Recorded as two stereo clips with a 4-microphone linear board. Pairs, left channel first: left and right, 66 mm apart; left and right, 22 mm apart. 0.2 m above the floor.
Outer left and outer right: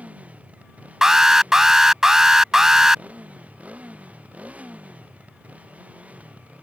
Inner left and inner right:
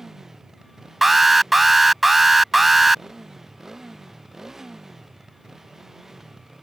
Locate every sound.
0.0 s a motorcycle: 20° right (ahead or behind)
1.0 s an alarm: 10° right (ahead or behind)